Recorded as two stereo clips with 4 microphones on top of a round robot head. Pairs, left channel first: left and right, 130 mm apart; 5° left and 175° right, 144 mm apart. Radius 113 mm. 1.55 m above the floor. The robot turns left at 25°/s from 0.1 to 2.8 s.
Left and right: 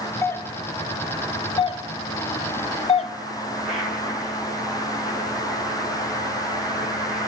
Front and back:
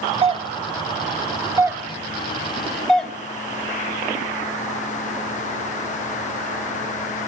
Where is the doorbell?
155° left, 0.5 m; by 3.1 s 90° left, 0.5 m.